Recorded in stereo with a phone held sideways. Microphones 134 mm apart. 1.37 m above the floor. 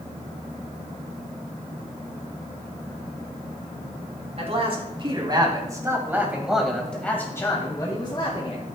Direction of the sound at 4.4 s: 45° right (ahead or behind).